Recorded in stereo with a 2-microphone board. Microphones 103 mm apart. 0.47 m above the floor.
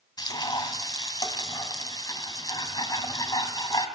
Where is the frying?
40° left (ahead or behind), 3 m.